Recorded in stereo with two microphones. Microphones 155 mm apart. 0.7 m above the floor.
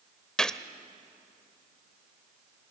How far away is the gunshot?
About 0.7 m.